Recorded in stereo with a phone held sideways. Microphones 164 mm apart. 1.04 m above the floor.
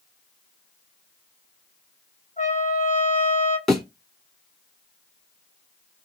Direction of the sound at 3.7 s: Centre (ahead or behind).